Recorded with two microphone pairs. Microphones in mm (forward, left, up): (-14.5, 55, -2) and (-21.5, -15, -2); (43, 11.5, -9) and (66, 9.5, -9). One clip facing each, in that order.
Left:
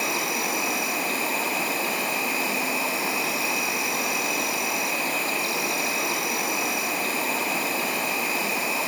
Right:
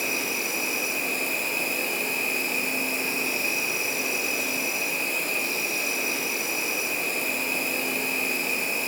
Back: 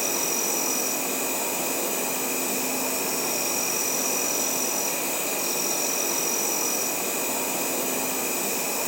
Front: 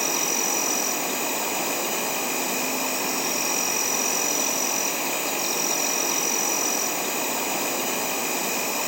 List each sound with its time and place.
0.0 s an insect: 65° left, 3.5 m